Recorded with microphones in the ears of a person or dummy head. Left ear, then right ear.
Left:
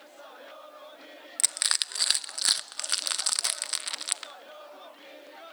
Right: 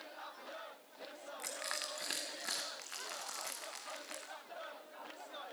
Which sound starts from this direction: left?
Crushing, at 1.4 s.